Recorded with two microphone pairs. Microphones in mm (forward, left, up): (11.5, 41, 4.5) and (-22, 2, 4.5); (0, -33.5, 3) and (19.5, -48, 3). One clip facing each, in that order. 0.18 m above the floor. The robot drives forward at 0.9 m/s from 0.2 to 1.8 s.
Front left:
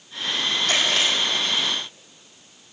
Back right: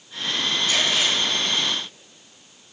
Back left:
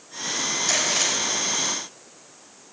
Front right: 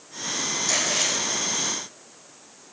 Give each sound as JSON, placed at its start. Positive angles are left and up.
{"t": 0.7, "sound": "chewing", "azimuth_deg": 65, "distance_m": 4.5}